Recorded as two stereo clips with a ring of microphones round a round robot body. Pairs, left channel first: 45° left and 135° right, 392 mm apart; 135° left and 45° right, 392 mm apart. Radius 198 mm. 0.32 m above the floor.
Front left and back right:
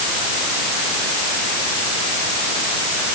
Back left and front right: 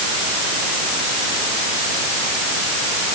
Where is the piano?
I don't hear a piano.